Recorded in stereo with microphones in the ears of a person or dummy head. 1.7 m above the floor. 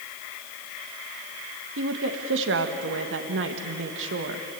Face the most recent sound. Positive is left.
turn(degrees=-65)  # may be behind; listen again after turning